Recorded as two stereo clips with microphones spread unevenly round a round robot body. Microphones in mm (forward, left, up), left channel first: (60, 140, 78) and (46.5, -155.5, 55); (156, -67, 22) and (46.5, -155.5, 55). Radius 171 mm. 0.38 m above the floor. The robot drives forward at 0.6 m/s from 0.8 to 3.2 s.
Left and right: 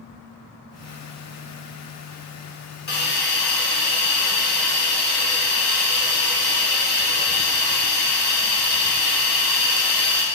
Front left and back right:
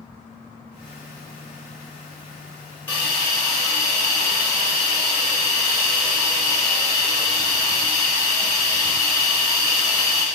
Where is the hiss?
75° left, 1.6 m; by 10.2 s 90° left, 1.6 m.